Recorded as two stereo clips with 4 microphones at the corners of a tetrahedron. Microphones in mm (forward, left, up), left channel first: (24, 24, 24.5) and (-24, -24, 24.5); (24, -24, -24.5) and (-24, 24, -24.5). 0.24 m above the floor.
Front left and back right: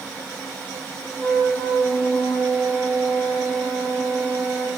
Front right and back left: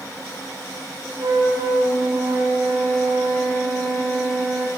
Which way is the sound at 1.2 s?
120° left.